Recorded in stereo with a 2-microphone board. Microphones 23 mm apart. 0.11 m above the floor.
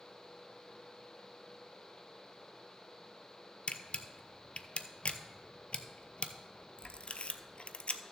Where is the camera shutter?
60° left (ahead or behind), 0.5 m.